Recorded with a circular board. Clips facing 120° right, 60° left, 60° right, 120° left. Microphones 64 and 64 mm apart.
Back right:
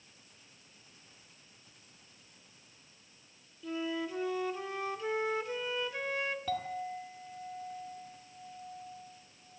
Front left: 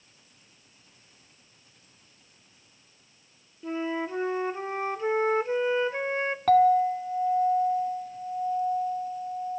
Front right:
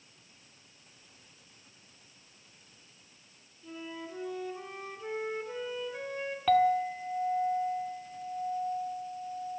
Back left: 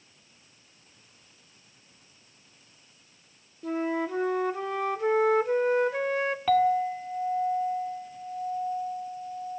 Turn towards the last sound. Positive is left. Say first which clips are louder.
# front left 17 dB, back left 1 dB
turn(degrees=30)